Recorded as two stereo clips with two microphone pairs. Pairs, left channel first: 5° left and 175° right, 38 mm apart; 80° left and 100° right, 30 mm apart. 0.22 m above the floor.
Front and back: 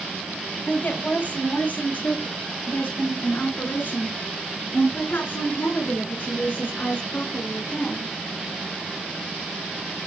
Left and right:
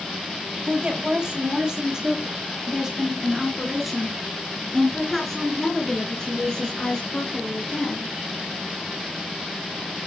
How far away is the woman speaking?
About 5.5 m.